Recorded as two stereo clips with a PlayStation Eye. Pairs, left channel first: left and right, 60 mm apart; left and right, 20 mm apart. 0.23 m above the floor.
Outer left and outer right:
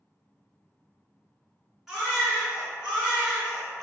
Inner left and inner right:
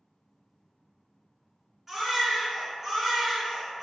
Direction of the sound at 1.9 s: 10° right (ahead or behind).